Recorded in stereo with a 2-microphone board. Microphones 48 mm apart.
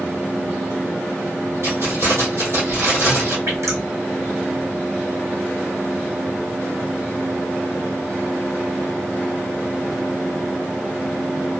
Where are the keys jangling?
60° right (ahead or behind), 3 m.